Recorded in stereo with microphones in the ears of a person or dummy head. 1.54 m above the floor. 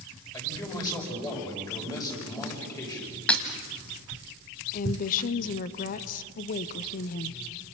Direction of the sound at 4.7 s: 45° left (ahead or behind).